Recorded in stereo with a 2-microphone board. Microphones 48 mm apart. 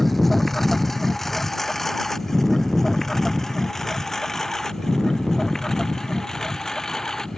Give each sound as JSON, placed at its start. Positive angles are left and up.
{"t": 0.0, "sound": "a lawn mower", "side_deg": 5}